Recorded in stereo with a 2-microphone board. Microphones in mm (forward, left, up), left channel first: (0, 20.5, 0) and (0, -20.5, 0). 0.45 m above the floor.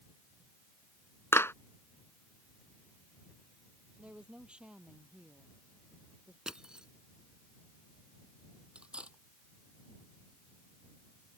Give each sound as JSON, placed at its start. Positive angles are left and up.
{"t": 1.3, "sound": "a clap", "side_deg": 75}
{"t": 4.0, "sound": "a woman speaking", "side_deg": -25}
{"t": 6.5, "sound": "crushing", "side_deg": -20}
{"t": 8.8, "sound": "cutlery clinking", "side_deg": -25}